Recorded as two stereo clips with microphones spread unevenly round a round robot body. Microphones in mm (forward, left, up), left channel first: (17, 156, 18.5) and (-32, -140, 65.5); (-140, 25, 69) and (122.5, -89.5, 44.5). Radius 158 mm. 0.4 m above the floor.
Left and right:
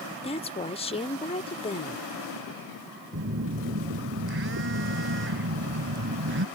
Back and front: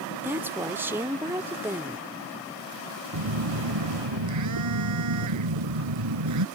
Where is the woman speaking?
45° left.